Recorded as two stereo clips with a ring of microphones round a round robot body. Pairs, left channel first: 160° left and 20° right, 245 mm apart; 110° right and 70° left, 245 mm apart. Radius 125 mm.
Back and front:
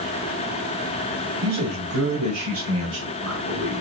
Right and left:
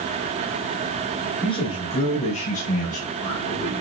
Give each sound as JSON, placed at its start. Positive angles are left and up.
{"t": 1.4, "sound": "a man speaking", "azimuth_deg": -45, "distance_m": 2.0}